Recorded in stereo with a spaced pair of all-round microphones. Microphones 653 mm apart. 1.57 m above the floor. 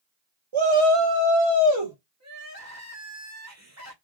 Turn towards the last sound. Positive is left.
turn(degrees=-25)  # may be behind; listen again after turning